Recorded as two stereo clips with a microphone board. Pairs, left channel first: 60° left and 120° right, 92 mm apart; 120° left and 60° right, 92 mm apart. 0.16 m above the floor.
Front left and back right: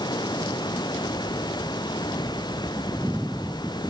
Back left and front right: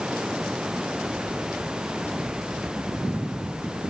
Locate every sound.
0.0 s running water: 20° left